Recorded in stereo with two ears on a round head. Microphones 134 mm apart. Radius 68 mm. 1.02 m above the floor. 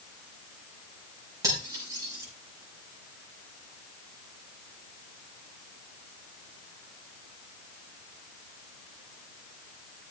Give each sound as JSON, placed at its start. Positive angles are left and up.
{"t": 1.4, "sound": "cutlery clinking", "side_deg": -25, "distance_m": 5.5}